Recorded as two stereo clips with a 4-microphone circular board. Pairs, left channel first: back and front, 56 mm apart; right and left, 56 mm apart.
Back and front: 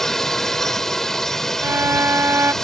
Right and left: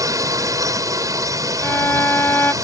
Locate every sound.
0.0 s a drone: 95° left
1.6 s a violin: 40° right